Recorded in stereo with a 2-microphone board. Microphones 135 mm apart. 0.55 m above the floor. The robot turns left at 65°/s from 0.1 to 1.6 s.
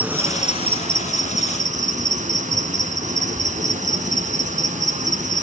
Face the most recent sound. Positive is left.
turn(degrees=-110)